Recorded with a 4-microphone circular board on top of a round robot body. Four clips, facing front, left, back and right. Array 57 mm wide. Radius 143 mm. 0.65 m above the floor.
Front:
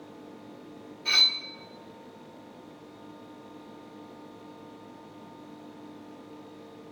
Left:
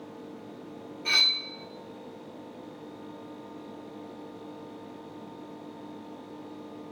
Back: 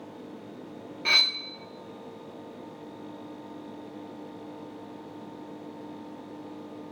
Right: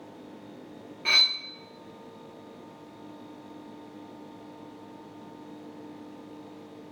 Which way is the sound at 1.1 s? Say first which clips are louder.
Right 1 dB, back 1 dB; 150° right.